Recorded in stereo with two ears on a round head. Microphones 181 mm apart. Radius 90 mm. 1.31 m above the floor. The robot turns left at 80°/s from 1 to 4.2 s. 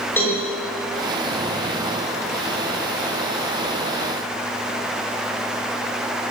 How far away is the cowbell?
About 7.5 m.